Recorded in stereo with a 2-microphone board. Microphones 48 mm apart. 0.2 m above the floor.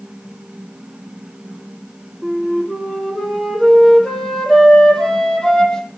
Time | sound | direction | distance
2.2 | a flute | 10° left (ahead or behind) | 7 m